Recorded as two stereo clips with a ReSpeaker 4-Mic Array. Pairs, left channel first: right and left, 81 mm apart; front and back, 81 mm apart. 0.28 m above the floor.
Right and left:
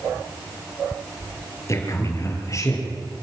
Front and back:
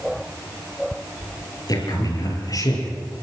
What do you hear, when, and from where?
1.7 s a man speaking: 40° right, 5 m